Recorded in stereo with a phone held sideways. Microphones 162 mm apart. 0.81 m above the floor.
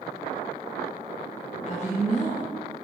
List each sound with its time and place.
1.7 s a woman speaking: 45° left (ahead or behind), 1.2 m